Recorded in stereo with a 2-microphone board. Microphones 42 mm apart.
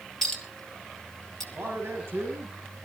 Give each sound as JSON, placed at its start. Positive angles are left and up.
{"t": 0.2, "sound": "a clink", "side_deg": 10, "distance_m": 2.0}
{"t": 1.5, "sound": "a man speaking", "side_deg": -70, "distance_m": 4.0}